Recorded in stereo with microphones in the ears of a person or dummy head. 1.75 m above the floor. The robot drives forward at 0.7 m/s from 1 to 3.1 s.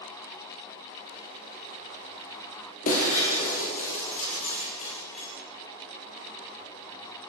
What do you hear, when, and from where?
2.9 s breaking glass: 40° left (ahead or behind), 5.5 m